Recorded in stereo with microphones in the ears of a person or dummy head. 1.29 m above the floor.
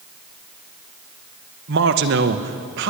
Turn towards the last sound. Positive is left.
turn(degrees=-60)  # may be behind; listen again after turning